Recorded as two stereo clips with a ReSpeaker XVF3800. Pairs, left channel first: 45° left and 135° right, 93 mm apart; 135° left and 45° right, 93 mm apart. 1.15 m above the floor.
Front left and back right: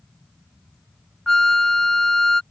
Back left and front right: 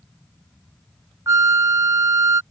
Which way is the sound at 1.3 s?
35° right.